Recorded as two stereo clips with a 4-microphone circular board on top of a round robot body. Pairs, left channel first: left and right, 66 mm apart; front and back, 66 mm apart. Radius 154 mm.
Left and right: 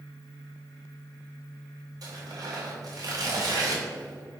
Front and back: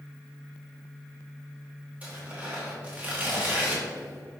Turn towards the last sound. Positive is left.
turn(degrees=-115)